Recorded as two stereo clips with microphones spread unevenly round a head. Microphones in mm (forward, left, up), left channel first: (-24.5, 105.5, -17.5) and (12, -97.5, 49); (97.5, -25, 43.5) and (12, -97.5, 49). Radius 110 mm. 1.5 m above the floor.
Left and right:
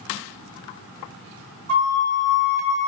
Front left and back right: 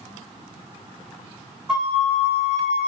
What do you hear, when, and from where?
1.7 s a flute: 55° right, 1.3 m